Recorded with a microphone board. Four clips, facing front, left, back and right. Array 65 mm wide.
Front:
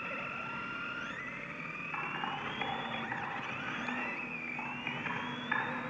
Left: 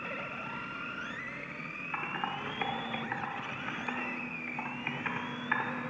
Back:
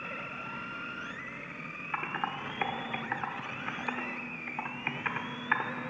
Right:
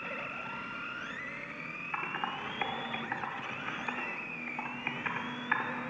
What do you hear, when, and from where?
1.9 s typing on a keyboard: 170° right, 0.7 m